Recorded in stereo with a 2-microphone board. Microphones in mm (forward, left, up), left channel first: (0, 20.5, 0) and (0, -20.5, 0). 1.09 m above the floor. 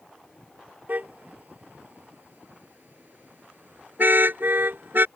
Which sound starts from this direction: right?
A car horn, at 0.9 s.